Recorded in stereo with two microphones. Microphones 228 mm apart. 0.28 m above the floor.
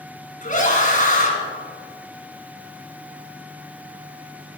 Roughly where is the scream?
Left.